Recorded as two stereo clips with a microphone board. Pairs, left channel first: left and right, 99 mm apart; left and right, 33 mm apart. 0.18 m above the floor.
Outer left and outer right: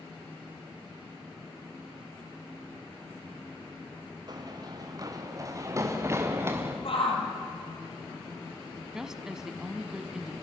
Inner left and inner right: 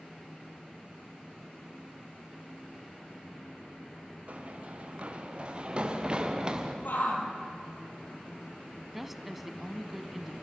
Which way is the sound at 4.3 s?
45° right (ahead or behind).